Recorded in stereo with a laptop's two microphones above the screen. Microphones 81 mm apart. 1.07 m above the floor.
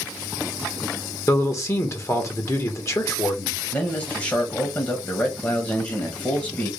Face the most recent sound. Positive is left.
turn(degrees=30)  # may be behind; listen again after turning